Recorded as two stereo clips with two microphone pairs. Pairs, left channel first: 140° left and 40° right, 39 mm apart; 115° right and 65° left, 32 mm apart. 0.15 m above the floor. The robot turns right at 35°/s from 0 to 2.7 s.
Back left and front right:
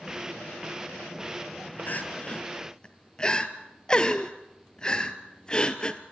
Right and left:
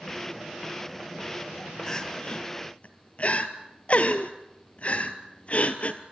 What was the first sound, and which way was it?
Crying, 175° left.